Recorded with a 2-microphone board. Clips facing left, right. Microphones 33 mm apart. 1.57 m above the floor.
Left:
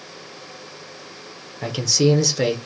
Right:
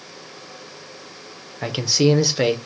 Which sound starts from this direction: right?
A man speaking, at 1.6 s.